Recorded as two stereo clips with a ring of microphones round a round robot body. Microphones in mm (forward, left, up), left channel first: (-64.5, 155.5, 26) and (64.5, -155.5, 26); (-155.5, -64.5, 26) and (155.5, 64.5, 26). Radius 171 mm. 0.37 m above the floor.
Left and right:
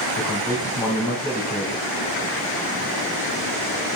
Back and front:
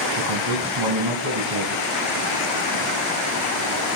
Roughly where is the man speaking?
Ahead left.